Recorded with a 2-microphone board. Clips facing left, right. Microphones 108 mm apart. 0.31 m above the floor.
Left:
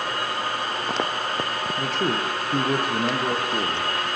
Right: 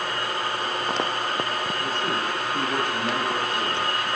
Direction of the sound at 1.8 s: 75° left (ahead or behind).